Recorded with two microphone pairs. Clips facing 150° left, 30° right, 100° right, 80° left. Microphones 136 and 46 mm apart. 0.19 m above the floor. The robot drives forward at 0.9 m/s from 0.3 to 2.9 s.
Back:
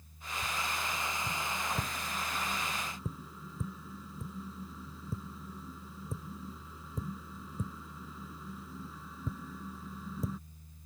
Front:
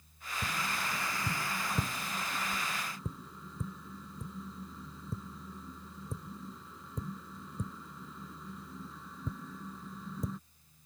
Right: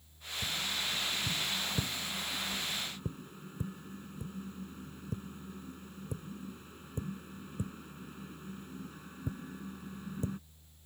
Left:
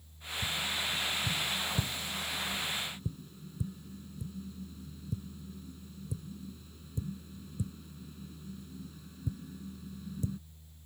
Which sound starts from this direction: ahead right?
Tapping, at 0.4 s.